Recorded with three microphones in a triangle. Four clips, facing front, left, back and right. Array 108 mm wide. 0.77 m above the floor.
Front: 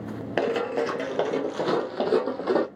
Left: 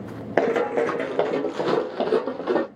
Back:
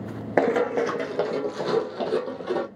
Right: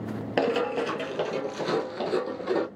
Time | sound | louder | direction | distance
0.4 | running footsteps | left 5 dB, back 4 dB | 135° left | 0.8 m